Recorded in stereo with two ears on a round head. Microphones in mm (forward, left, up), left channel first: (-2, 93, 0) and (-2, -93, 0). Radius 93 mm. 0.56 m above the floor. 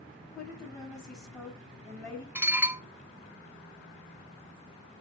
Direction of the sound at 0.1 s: 15° left (ahead or behind).